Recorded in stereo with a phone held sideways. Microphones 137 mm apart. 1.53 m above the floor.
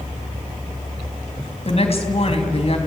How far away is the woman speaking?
About 3.5 m.